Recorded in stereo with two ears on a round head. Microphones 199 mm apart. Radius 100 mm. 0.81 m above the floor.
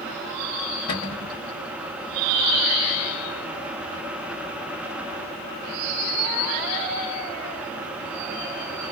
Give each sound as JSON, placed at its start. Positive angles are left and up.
{"t": 0.9, "sound": "a cupboard door", "side_deg": 45, "distance_m": 1.8}